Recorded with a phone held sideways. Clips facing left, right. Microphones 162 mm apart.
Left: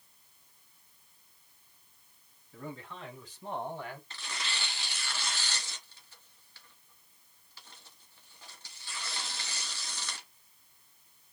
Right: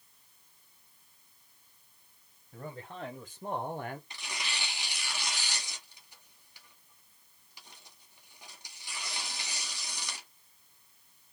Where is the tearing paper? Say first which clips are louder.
Even; 15° right (ahead or behind), 1.4 m.